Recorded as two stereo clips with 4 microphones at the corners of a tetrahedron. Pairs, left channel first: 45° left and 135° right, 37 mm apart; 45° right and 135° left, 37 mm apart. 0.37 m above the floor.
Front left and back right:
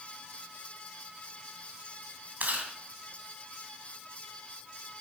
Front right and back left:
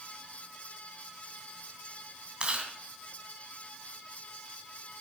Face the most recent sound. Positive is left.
turn(degrees=-165)